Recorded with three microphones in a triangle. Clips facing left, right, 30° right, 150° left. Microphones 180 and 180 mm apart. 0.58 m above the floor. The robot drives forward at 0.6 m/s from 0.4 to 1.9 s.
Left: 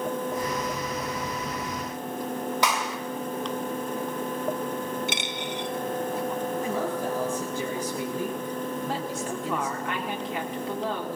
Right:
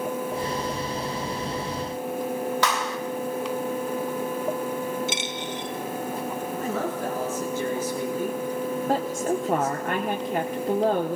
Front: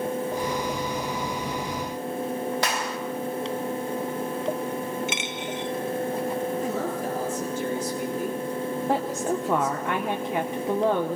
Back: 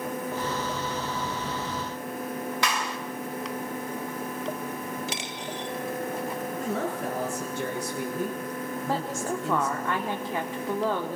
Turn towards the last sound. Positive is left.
turn(degrees=-95)